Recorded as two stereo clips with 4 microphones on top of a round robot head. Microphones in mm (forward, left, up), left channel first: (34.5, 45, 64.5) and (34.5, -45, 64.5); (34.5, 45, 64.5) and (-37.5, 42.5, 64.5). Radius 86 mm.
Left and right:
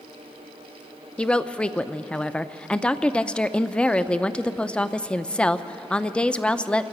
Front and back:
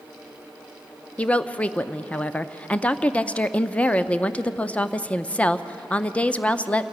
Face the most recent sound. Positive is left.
turn(degrees=35)